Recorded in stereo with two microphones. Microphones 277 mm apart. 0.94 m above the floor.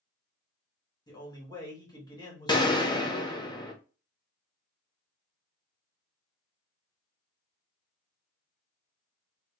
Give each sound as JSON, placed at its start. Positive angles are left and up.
{"t": 1.1, "sound": "a man speaking", "side_deg": 15, "distance_m": 1.5}
{"t": 2.5, "sound": "a gunshot", "side_deg": 15, "distance_m": 0.7}